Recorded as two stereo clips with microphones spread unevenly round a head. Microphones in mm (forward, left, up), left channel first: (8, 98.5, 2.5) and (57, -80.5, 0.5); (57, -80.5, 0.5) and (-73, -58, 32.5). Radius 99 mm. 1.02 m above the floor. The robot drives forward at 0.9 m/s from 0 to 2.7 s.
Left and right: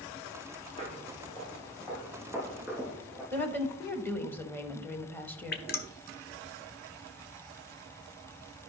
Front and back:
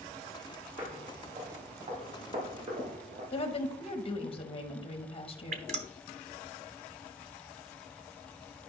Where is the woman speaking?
25° left, 1.2 m.